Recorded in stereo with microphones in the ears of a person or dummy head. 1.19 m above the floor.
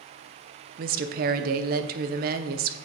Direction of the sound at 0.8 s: 45° right (ahead or behind).